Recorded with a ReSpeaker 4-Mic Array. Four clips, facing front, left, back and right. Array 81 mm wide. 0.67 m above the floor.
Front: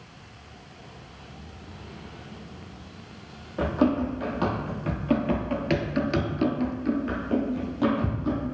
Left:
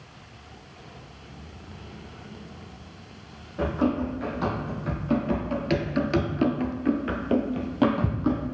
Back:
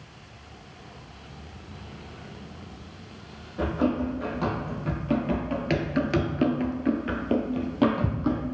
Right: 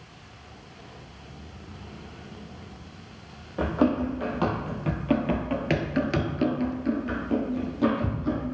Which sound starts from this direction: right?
Running footsteps, at 3.6 s.